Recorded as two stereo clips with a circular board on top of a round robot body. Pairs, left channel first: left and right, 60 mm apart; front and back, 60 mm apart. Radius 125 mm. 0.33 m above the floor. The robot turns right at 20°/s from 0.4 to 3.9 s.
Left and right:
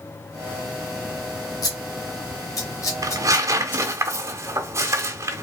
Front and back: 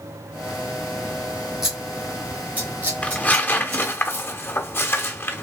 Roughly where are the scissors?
Left.